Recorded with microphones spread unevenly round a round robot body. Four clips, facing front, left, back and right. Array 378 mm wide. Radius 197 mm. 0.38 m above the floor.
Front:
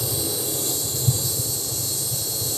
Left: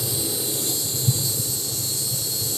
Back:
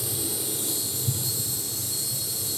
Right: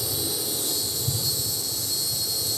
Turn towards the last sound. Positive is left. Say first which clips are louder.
# left 3 dB, front 5 dB
turn(degrees=25)